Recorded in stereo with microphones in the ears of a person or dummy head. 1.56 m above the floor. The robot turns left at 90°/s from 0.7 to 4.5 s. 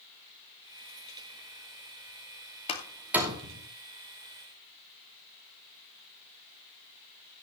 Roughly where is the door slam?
Left.